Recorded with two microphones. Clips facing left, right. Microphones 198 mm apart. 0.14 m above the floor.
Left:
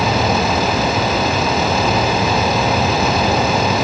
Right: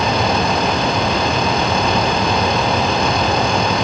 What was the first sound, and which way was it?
Only background noise.